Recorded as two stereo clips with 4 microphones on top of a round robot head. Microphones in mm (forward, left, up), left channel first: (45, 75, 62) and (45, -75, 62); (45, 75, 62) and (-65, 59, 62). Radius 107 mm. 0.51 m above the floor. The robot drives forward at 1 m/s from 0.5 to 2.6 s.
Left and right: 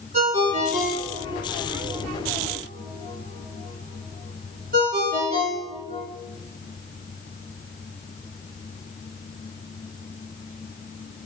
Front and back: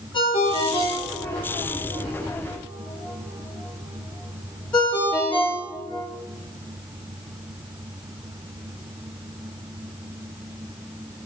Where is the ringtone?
50° right, 6.5 m; by 6.1 s 70° right, 5.5 m.